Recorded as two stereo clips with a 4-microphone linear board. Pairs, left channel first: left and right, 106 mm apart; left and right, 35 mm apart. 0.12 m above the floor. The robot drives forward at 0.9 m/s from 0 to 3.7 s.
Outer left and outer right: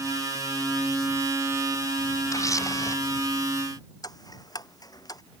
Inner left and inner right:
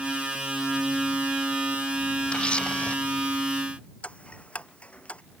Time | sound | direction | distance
2.3 | a camera shutter | 30° left (ahead or behind) | ?
4.0 | ticking | 35° left (ahead or behind) | ?